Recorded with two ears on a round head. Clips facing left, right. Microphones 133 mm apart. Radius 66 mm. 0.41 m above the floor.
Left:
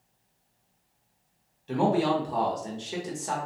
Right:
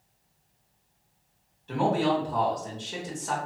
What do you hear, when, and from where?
1.7 s a man speaking: 25° left (ahead or behind), 0.8 m